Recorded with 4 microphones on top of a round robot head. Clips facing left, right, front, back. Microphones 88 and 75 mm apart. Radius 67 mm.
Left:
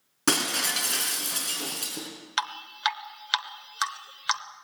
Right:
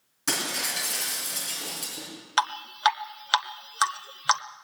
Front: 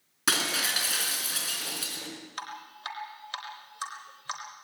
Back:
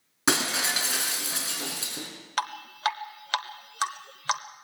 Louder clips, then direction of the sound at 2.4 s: Right 6 dB, back 12 dB; 140° right.